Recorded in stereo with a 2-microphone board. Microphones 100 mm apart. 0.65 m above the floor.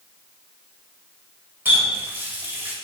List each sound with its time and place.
1.6 s a running tap: 20° right (ahead or behind), 2 m